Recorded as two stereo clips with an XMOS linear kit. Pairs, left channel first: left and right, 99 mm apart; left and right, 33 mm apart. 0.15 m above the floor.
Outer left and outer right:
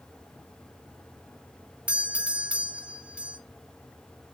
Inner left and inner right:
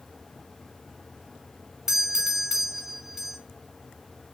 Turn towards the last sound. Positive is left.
turn(degrees=-10)  # may be behind; listen again after turning